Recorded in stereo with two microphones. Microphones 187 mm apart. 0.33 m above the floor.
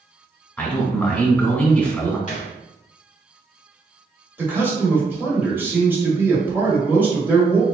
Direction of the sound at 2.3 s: 40° left (ahead or behind).